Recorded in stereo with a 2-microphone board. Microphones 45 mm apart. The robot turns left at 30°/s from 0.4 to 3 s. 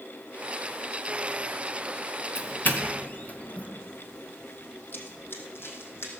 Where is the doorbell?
60° left (ahead or behind), 2.5 m; by 3.7 s 40° left (ahead or behind), 2.5 m.